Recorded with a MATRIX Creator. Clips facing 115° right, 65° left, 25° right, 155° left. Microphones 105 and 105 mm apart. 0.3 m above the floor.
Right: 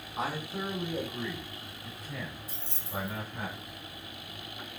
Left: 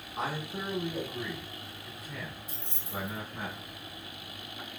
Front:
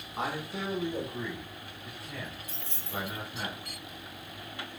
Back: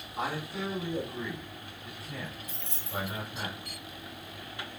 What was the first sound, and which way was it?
A man speaking, 40° right.